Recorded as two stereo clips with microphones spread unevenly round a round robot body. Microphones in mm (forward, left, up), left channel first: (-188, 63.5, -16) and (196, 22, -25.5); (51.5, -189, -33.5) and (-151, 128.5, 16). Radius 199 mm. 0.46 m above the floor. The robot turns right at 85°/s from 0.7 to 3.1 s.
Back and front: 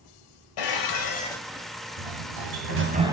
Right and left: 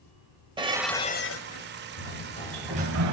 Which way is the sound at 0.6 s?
155° right.